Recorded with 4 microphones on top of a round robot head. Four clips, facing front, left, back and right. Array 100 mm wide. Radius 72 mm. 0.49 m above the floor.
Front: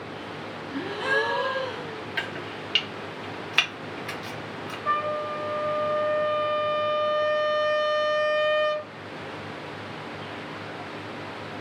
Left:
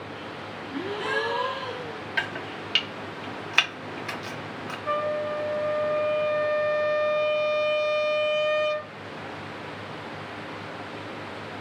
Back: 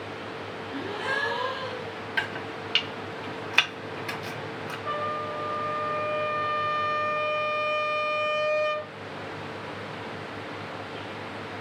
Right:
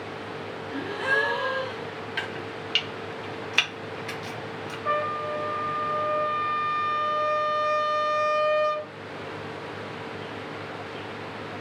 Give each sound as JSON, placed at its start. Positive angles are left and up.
{"t": 0.7, "sound": "a gasp", "azimuth_deg": -60, "distance_m": 2.5}
{"t": 2.2, "sound": "chopping", "azimuth_deg": 115, "distance_m": 1.0}
{"t": 4.8, "sound": "a trumpet", "azimuth_deg": -45, "distance_m": 1.6}